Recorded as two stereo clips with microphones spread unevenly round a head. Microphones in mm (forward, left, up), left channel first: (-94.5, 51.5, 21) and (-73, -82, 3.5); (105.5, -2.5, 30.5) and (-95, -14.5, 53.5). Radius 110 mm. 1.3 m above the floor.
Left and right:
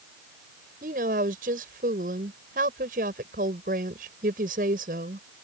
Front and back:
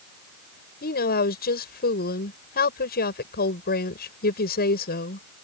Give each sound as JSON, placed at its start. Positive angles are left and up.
{"t": 0.8, "sound": "a woman speaking", "azimuth_deg": -40}